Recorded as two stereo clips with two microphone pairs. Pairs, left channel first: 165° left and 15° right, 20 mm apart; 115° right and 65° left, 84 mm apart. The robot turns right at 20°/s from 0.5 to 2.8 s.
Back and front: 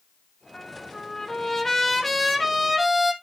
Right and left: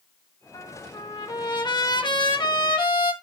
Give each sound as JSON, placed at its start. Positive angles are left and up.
{"t": 0.5, "sound": "a trumpet", "azimuth_deg": -145, "distance_m": 1.6}